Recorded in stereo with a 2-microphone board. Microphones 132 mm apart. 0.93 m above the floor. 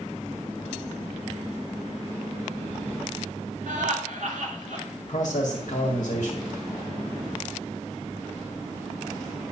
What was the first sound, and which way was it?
Laughter, 70° right (ahead or behind).